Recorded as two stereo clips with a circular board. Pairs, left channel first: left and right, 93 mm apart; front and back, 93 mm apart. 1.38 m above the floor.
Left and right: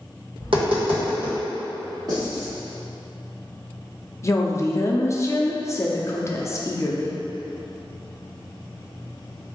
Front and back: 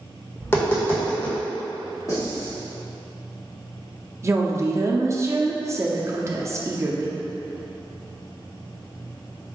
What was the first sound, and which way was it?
Tapping, 65° right.